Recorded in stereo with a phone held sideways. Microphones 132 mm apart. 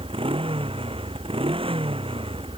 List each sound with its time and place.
0.0 s a motorcycle: 40° right (ahead or behind)